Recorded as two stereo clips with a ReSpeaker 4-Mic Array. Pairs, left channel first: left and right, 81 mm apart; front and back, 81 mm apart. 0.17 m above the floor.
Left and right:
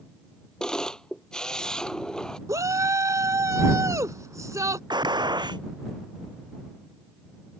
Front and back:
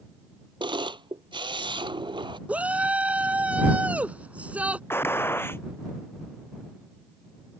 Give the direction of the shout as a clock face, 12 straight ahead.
4 o'clock.